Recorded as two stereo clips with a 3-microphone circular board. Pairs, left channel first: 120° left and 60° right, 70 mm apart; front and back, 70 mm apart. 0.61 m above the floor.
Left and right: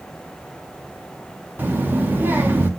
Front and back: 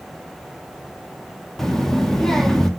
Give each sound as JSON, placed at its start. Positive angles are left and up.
{"t": 1.6, "sound": "a child speaking", "azimuth_deg": -80, "distance_m": 0.7}